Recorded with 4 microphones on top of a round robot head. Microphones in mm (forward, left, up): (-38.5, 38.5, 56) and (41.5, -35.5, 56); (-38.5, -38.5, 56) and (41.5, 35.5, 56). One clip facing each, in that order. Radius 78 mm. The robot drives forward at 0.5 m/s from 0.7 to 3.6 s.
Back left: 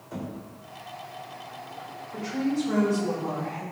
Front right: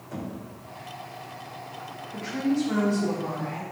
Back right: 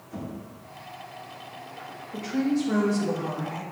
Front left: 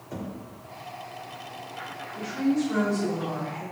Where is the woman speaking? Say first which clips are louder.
Front right 1 dB, even; 145° right, 3 m; by 3.6 s 150° right, 3.5 m.